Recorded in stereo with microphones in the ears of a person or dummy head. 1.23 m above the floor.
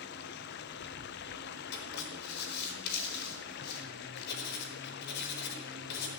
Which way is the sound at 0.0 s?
60° left (ahead or behind).